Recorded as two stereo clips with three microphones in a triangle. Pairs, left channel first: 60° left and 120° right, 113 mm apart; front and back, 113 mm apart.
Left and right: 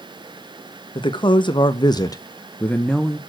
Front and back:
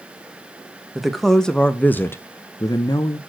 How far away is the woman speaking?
About 1.2 m.